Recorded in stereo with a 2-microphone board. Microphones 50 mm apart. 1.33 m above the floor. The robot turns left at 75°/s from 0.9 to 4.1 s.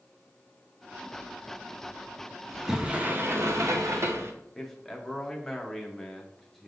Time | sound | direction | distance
2.5 | a sliding door | 5° left | 0.6 m
4.5 | a man speaking | 5° left (ahead or behind) | 0.8 m